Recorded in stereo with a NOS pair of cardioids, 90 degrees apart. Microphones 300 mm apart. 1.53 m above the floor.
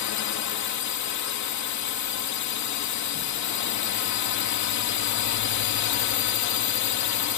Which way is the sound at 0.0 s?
70° left.